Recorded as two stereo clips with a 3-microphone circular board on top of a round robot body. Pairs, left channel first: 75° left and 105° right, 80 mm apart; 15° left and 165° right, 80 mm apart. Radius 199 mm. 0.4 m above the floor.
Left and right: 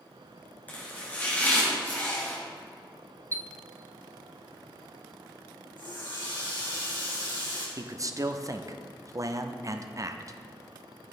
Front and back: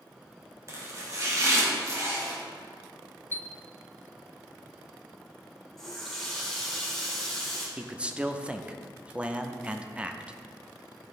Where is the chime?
45° right, 0.5 m.